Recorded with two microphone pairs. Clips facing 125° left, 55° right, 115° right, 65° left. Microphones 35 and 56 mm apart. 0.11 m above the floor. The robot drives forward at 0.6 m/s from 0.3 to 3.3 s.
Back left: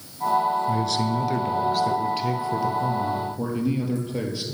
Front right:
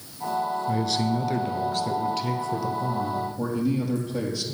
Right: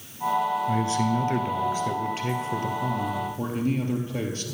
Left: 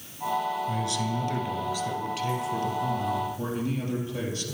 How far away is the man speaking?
About 1.4 m.